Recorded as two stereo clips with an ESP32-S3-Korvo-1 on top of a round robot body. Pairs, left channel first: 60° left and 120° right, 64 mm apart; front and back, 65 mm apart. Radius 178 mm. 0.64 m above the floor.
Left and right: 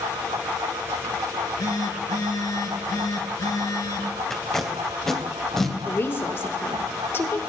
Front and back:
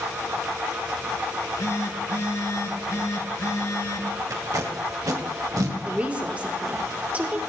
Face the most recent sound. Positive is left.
turn(degrees=110)